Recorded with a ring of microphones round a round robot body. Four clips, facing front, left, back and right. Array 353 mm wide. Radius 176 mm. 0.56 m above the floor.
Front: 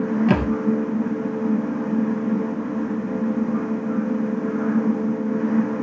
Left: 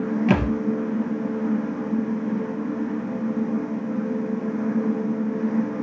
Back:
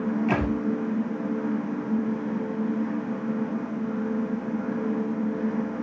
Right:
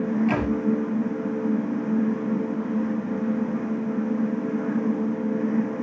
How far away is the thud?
About 1.9 m.